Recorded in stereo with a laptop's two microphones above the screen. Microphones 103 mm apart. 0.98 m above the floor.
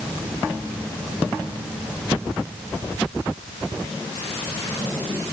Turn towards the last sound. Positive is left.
No sound to turn to.